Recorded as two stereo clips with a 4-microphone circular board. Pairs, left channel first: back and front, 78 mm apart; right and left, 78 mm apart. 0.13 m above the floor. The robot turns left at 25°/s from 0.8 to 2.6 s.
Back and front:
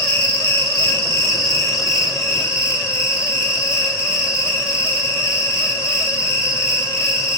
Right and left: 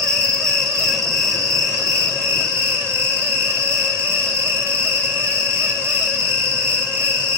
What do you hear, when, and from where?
0.0 s an insect: 110° left, 1.8 m; by 7.4 s 65° left, 1.8 m